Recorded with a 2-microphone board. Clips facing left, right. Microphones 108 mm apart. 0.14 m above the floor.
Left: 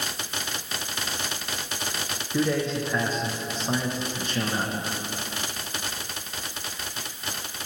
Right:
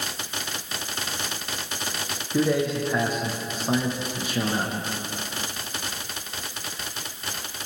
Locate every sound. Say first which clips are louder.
2.3 s a man speaking: right 2 dB; 10° right (ahead or behind), 6.5 m